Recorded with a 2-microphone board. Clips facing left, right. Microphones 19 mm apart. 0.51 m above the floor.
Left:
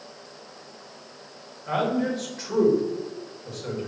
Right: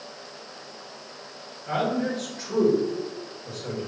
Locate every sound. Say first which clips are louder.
1.7 s a man speaking: left 1 dB; 25° left (ahead or behind), 1.9 m